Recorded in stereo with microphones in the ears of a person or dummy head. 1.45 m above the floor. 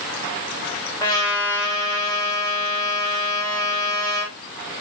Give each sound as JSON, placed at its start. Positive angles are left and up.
{"t": 1.0, "sound": "a trumpet", "side_deg": 20, "distance_m": 4.0}